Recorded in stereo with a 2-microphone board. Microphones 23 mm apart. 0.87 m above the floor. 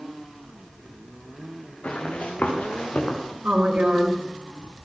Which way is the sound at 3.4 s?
75° right (ahead or behind).